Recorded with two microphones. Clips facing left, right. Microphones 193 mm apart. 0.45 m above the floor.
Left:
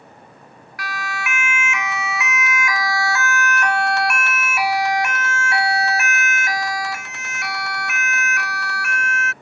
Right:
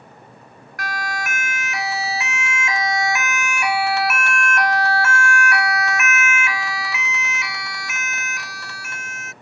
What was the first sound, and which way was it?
A siren, 45° right (ahead or behind).